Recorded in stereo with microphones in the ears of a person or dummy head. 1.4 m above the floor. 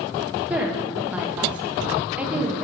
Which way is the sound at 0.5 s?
10° right (ahead or behind).